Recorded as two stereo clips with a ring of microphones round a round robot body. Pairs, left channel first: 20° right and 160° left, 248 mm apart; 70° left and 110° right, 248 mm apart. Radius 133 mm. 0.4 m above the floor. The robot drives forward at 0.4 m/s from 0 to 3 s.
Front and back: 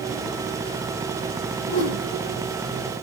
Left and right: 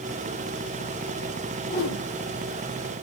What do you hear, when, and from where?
1.7 s a whoosh: 15° left, 9.5 m; by 2.0 s 20° left, 9.5 m